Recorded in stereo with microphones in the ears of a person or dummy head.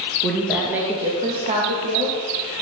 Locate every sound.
0.2 s a woman speaking: 10° left (ahead or behind), 1.9 m; by 2.6 s 65° right (ahead or behind), 3 m